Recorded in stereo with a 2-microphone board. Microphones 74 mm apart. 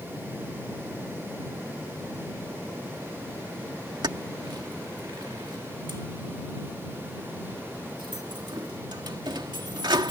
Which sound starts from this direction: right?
Keys jangling, at 4.0 s.